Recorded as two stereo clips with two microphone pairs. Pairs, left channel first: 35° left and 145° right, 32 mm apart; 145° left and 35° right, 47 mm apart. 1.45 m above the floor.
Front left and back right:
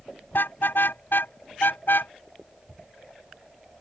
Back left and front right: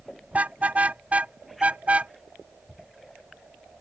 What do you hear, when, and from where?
0.3 s a car horn: 25° left; by 2.1 s 30° left